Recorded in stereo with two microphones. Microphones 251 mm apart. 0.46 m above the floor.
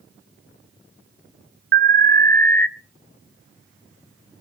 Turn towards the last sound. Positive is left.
turn(degrees=-45)  # may be behind; listen again after turning